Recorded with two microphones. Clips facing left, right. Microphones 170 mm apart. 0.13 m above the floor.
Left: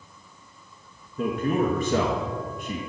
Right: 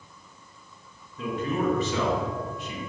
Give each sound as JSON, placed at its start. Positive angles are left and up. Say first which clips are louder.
{"t": 1.2, "sound": "a man speaking", "louder": "left 3 dB", "side_deg": 45, "distance_m": 1.7}